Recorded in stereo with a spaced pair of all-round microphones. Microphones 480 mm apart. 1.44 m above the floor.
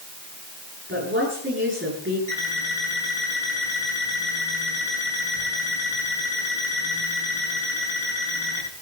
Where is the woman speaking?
25° right (ahead or behind), 9 m.